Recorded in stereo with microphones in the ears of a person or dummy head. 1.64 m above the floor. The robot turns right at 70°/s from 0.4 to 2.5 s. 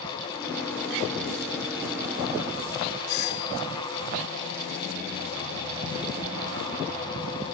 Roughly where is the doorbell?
Left.